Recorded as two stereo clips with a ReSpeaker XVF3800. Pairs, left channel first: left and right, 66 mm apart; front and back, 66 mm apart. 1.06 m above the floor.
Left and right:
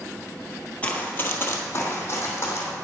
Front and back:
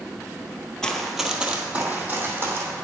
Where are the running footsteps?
65° left, 1.1 m; by 2.7 s 135° left, 2.5 m.